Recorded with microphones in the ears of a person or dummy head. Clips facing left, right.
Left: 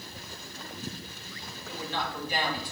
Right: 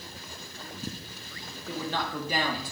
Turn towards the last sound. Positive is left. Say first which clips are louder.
# right 3 dB
turn(degrees=-70)  # may be behind; listen again after turning